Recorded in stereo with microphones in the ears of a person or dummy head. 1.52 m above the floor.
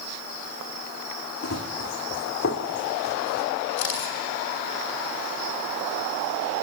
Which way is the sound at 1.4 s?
65° left (ahead or behind).